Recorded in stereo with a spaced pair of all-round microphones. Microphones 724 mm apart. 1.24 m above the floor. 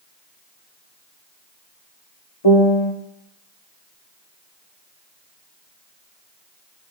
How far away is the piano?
About 1.0 m.